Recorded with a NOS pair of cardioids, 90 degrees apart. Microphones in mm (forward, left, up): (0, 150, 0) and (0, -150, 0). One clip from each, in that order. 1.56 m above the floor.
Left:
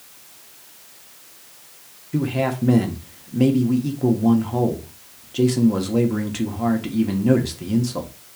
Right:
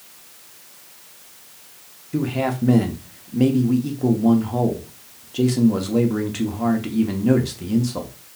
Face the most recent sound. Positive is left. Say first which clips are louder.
# even
turn(degrees=5)